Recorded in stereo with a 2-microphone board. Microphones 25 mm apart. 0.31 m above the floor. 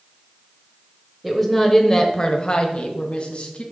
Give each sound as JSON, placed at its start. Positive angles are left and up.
{"t": 1.2, "sound": "a woman speaking", "side_deg": -5, "distance_m": 1.1}